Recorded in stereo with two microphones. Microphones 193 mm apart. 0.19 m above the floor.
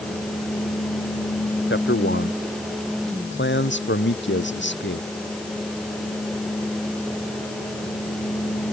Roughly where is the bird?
No bird in this recording.